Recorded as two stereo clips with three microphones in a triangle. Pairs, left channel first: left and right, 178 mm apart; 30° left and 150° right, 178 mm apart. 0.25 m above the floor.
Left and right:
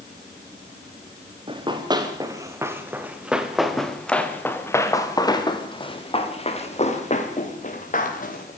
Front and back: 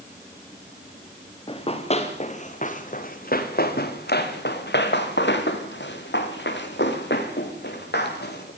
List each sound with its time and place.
1.5 s running footsteps: 30° right, 5 m; by 8.5 s 50° left, 7 m